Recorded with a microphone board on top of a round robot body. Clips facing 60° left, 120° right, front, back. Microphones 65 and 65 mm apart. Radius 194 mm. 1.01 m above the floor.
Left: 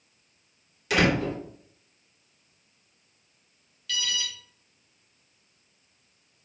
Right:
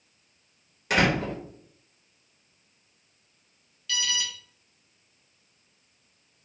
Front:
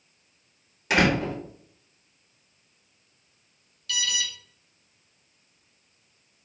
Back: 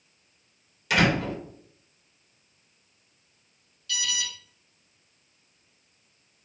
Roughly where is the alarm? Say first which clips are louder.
Right 1 dB, front 2 dB; ahead right.